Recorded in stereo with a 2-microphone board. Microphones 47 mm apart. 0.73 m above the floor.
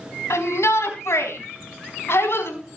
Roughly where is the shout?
Left.